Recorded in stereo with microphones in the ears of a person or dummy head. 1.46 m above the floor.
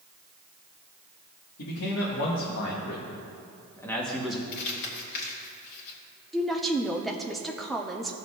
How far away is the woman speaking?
About 0.7 m.